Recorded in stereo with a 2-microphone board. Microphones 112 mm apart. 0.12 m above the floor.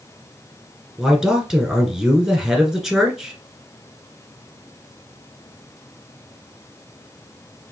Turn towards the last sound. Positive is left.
turn(degrees=-5)  # may be behind; listen again after turning